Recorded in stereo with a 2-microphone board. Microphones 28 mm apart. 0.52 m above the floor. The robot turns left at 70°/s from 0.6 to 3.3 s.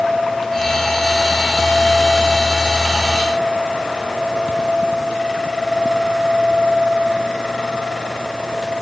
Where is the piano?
I don't hear a piano.